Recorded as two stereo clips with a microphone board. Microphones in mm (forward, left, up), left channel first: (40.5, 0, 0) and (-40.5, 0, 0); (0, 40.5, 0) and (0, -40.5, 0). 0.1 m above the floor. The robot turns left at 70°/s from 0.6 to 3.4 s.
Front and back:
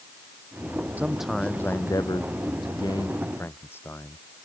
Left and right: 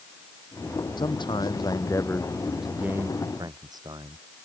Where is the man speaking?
110° left; by 4.2 s 60° right.